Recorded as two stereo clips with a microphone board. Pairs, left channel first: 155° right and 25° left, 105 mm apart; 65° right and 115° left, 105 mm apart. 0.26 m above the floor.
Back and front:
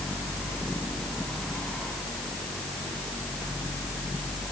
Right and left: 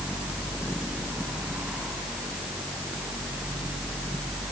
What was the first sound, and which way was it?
Only background noise.